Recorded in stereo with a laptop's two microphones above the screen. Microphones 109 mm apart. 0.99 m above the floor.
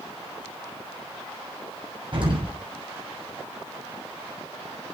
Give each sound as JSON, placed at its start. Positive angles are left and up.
{"t": 2.1, "sound": "an explosion", "side_deg": -50, "distance_m": 6.5}